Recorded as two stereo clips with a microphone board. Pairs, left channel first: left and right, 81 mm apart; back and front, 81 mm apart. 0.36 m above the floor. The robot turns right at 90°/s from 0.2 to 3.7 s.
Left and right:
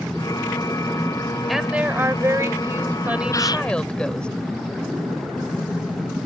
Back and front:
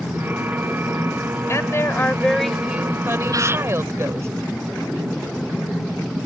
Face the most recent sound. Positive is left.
turn(degrees=75)